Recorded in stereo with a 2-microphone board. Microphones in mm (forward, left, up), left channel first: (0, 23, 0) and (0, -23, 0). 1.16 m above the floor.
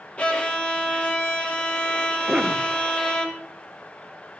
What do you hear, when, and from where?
0.2 s a violin: 30° left (ahead or behind), 2 m
2.3 s a cough: 20° right (ahead or behind), 3.5 m